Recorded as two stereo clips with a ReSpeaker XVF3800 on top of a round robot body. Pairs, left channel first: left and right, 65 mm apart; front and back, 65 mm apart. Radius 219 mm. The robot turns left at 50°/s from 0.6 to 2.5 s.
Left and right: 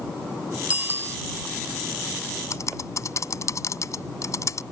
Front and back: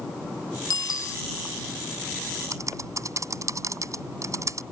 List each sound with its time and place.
0.7 s a bicycle bell: 20° right; by 1.2 s 45° right
2.5 s typing on a keyboard: 135° left